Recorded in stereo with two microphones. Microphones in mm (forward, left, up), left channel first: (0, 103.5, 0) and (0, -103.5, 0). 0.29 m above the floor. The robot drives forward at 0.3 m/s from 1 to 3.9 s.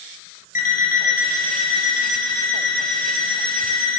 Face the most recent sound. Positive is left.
turn(degrees=25)  # may be behind; listen again after turning